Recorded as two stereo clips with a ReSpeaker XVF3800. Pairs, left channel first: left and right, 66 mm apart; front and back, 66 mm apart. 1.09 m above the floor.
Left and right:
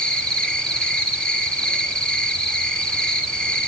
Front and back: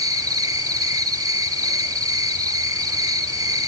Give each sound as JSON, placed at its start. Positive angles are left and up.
{"t": 0.0, "sound": "an insect", "azimuth_deg": 165, "distance_m": 2.0}